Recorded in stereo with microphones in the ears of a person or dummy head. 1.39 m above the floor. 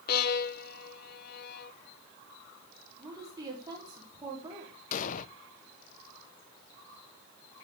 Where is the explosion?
50° left (ahead or behind), 0.6 m.